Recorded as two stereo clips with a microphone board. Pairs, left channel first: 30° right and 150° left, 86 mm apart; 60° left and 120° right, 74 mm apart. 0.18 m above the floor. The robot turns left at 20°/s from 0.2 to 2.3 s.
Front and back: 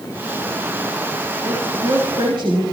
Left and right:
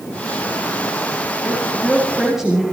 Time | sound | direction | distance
1.4 | a woman speaking | 170° left | 4.5 m